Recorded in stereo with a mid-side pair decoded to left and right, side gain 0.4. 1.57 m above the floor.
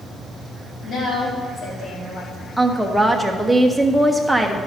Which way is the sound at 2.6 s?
Straight ahead.